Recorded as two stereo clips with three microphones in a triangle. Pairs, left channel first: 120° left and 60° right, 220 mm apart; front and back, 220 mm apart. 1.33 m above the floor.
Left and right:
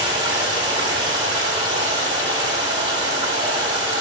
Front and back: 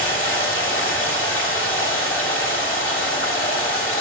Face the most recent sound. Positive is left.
turn(degrees=5)